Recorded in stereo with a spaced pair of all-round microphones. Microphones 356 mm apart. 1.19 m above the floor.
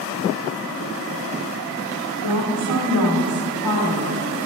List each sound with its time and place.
2.2 s a woman speaking: 75° left (ahead or behind), 1.9 m